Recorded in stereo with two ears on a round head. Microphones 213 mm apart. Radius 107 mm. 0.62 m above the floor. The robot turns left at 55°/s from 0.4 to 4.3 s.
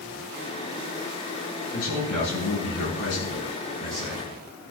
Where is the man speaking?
125° left, 7 m; by 4.3 s 15° right, 7 m.